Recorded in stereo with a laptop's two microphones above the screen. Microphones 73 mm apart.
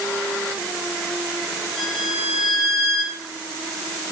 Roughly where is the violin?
Centre.